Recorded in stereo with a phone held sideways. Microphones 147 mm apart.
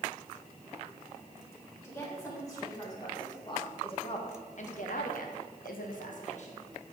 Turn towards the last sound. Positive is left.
turn(degrees=45)  # may be behind; listen again after turning